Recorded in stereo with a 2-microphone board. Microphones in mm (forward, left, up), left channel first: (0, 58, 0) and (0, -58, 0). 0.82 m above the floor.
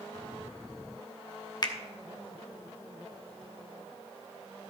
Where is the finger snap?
40° left (ahead or behind), 0.9 m.